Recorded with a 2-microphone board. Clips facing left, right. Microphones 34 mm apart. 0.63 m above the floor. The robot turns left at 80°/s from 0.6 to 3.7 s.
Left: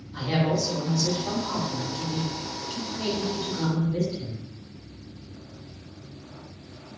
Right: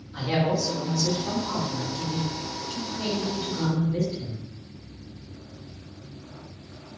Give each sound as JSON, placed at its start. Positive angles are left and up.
{"t": 0.1, "sound": "a man speaking", "azimuth_deg": -160, "distance_m": 1.8}